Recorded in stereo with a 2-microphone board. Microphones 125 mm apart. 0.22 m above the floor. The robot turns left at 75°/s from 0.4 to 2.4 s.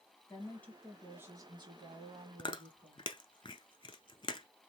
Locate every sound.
0.3 s a woman speaking: 35° left, 1.7 m; by 3.1 s 115° right, 1.7 m
2.4 s chewing: 40° left (ahead or behind), 0.5 m